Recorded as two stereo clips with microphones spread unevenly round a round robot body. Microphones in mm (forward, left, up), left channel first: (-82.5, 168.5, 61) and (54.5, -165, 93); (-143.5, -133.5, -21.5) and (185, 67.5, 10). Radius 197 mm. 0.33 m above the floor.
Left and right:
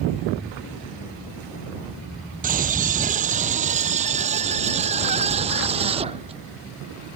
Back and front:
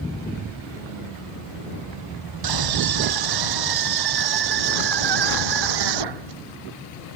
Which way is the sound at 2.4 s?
Straight ahead.